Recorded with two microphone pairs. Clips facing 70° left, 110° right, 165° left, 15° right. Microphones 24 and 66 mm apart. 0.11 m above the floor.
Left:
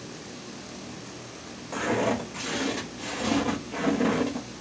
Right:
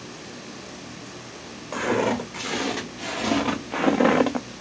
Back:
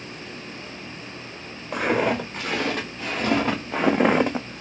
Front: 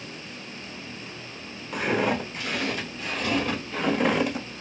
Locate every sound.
1.7 s footsteps: straight behind, 1.8 m; by 4.5 s 130° right, 0.5 m